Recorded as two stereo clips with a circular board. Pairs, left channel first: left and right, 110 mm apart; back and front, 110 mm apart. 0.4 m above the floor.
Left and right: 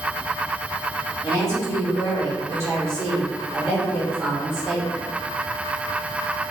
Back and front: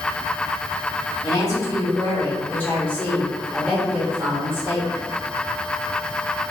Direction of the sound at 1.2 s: 140° right.